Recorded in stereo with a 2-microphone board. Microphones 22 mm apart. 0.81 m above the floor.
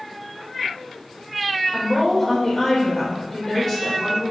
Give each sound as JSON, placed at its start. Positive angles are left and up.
{"t": 1.7, "sound": "a woman speaking", "side_deg": 20, "distance_m": 3.5}